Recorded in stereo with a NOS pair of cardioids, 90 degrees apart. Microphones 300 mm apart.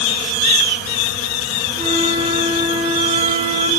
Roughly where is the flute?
Ahead.